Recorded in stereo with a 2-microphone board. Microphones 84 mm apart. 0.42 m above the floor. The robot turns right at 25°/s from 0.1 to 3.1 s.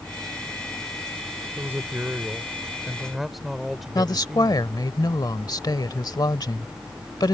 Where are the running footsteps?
I don't hear running footsteps.